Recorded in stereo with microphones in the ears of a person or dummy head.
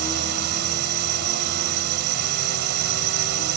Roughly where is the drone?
Right.